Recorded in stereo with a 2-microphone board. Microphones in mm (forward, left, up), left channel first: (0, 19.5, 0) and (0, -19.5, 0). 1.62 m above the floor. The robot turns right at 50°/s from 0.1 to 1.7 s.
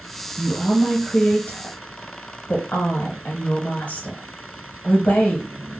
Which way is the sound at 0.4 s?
10° right (ahead or behind).